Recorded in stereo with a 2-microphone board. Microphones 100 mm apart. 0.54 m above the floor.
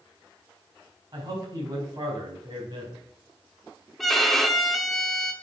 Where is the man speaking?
40° right (ahead or behind), 4 m.